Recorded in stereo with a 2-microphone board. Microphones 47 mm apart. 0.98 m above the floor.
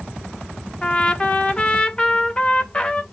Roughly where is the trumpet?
Centre.